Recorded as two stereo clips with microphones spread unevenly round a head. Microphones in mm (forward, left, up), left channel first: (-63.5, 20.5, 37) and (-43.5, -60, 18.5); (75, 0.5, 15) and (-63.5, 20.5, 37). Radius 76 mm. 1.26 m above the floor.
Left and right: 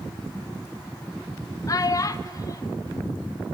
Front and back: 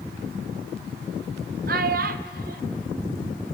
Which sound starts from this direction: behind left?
A child speaking, at 1.7 s.